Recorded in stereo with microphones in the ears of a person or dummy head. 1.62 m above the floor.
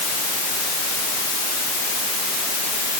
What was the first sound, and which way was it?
Only background noise.